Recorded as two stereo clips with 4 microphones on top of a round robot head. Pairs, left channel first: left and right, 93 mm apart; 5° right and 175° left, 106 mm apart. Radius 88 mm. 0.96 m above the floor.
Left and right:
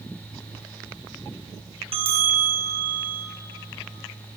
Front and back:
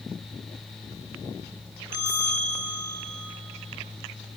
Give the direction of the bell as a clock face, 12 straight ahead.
4 o'clock.